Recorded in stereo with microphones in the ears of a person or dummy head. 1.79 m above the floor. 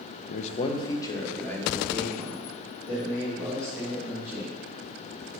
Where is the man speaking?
50° left (ahead or behind), 0.6 m; by 4.6 s 5° left (ahead or behind), 5.5 m.